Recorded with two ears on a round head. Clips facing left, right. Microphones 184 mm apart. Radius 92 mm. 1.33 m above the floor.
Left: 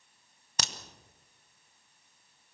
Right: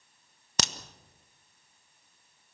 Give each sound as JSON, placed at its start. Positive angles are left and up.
{"t": 0.6, "sound": "a crack", "side_deg": -60, "distance_m": 1.1}